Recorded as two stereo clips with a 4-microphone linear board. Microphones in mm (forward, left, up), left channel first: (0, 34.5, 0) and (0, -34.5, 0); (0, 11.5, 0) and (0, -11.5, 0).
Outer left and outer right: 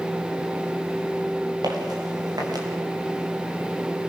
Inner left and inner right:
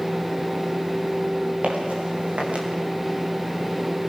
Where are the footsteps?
85° right, 8 m; by 2.7 s 75° right (ahead or behind), 7.5 m.